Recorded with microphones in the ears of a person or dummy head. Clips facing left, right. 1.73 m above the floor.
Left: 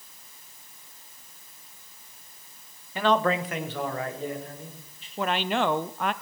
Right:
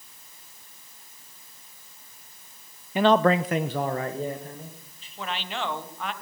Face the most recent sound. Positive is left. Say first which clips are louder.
# left 7 dB
turn(degrees=50)  # may be behind; listen again after turning